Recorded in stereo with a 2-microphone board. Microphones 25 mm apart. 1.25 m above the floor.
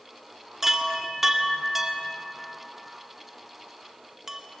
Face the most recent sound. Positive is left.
turn(degrees=-10)  # may be behind; listen again after turning